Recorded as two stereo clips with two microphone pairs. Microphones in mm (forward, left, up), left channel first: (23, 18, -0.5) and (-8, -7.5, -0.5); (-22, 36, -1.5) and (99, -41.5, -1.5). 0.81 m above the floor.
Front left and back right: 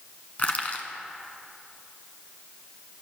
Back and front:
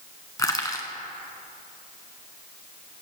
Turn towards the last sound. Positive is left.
turn(degrees=85)